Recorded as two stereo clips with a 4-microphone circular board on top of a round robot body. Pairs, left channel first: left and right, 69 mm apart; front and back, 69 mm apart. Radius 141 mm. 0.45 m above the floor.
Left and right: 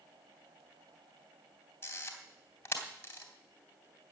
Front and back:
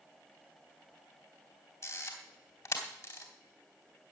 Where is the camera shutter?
35° left, 2.5 m.